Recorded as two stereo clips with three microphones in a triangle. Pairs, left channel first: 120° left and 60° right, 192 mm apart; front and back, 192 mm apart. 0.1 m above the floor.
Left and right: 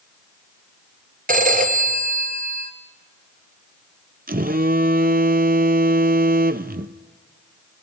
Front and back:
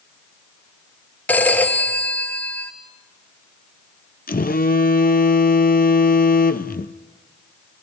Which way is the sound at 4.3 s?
30° right.